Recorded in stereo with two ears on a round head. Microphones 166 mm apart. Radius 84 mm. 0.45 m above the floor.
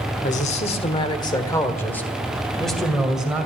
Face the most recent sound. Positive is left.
turn(degrees=-5)  # may be behind; listen again after turning